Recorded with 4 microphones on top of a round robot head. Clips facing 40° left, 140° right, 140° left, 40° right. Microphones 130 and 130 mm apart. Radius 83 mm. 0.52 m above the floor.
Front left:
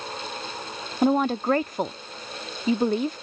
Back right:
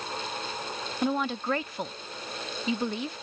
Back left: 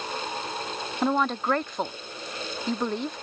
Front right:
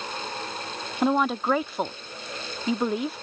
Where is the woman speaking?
45° left.